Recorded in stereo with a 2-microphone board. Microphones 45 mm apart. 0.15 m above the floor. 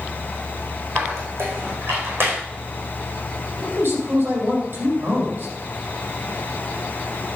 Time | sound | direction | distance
0.9 | a squeak | 65° right (ahead or behind) | 4.5 m
3.6 | a man speaking | 60° right (ahead or behind) | 5.5 m